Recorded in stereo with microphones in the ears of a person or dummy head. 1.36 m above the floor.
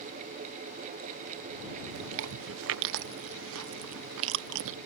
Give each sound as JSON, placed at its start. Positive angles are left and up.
{"t": 1.9, "sound": "chewing", "side_deg": -60}